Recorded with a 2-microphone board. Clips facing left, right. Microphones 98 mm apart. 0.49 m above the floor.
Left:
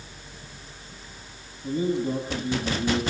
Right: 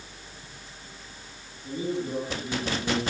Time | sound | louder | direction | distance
1.6 | a man speaking | left 5 dB | 35° left (ahead or behind) | 7 m